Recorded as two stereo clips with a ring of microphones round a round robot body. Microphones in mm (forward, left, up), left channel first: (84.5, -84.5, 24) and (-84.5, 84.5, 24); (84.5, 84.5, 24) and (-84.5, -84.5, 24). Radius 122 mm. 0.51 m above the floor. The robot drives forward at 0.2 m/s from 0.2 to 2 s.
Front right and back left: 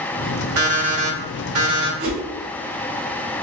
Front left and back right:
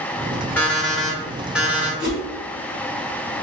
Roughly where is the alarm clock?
Behind left.